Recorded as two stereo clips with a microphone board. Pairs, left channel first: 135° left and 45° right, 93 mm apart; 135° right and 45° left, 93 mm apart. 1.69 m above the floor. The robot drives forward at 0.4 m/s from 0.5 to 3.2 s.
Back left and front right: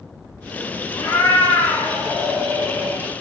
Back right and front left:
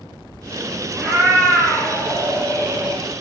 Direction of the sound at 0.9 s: 100° left.